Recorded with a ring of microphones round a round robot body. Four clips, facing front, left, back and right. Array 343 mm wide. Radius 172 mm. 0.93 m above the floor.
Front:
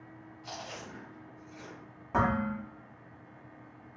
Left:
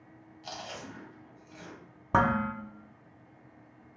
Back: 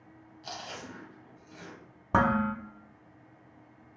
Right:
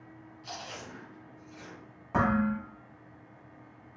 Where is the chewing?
140° left, 2.5 m.